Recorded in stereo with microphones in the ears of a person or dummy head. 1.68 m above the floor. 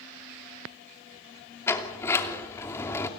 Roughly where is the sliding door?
Centre.